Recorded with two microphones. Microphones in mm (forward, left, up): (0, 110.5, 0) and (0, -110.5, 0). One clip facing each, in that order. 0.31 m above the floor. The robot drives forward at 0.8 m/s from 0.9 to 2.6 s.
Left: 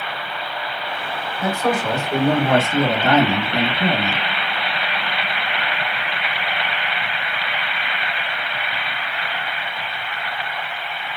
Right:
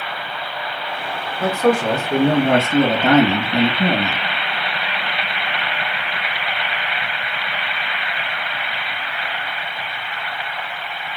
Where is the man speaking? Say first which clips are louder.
Right 5 dB; 50° right (ahead or behind), 2.0 m.